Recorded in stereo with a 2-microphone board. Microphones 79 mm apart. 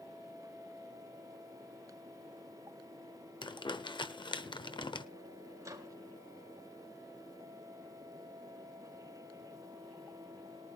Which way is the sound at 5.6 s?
40° right (ahead or behind).